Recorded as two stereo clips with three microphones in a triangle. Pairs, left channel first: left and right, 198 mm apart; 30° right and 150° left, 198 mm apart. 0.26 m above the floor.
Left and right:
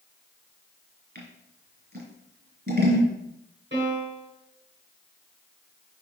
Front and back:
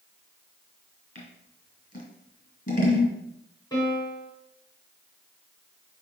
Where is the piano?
100° right, 3 m.